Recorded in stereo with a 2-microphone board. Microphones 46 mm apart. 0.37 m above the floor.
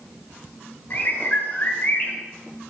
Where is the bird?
40° left (ahead or behind), 1.2 m.